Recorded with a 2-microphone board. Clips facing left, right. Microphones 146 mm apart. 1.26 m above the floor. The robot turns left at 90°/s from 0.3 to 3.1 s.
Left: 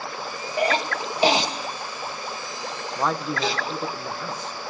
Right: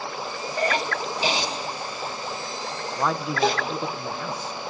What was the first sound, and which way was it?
A cough, 15° left (ahead or behind).